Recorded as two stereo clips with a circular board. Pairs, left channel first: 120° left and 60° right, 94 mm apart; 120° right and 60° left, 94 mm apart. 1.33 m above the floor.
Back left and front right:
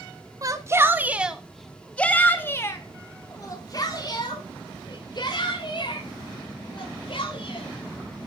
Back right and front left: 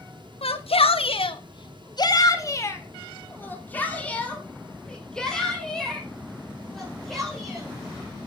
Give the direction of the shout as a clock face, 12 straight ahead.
4 o'clock.